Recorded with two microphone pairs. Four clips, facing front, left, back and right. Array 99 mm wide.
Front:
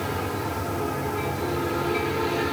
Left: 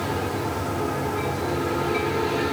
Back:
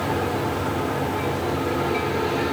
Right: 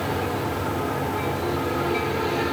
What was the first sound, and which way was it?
Only background noise.